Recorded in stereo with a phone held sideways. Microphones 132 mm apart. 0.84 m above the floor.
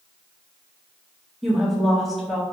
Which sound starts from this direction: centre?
A woman speaking, at 1.4 s.